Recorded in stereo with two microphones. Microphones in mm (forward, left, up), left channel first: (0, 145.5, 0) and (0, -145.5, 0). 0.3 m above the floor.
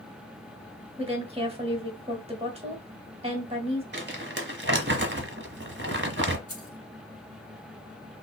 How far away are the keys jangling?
About 1.7 m.